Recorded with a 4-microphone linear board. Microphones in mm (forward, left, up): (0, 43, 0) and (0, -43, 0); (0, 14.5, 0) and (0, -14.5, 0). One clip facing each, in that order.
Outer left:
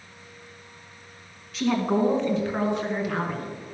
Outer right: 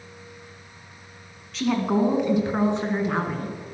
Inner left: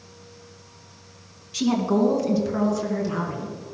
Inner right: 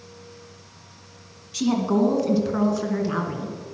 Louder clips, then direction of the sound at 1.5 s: Outer right 1 dB, even; centre (ahead or behind).